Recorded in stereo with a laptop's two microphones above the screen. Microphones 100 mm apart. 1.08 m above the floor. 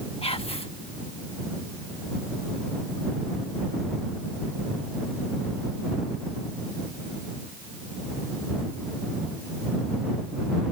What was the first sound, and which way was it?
Whispering, 70° left (ahead or behind).